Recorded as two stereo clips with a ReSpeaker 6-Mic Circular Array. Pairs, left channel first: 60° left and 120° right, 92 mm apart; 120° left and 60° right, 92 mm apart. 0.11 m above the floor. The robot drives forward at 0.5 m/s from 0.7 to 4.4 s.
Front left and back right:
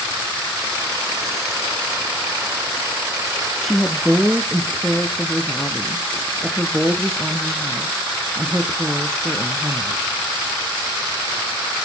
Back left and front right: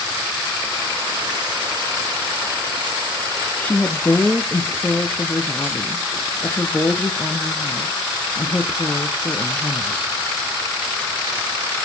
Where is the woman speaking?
145° left, 1.1 m; by 10.0 s 165° left, 1.3 m.